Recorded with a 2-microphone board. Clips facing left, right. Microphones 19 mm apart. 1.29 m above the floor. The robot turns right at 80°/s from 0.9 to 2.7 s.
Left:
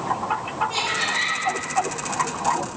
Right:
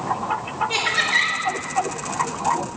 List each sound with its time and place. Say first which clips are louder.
0.7 s laughter: right 6 dB; 155° right, 2.5 m; by 1.4 s 115° right, 2.5 m